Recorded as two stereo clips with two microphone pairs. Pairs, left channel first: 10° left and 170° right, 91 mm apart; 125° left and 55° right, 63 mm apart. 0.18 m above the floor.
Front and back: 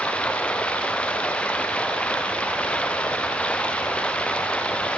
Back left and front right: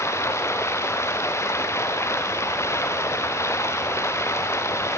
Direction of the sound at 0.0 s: 85° left.